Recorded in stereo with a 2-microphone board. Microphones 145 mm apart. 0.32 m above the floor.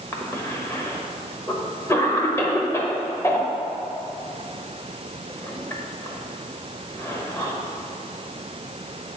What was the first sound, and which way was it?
A cough, 20° left (ahead or behind).